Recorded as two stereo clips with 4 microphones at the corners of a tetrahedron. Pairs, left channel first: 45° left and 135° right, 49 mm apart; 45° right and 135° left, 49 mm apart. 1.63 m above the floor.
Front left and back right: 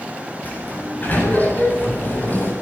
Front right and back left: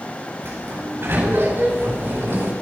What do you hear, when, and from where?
0.4 s a sliding door: 100° left, 8.5 m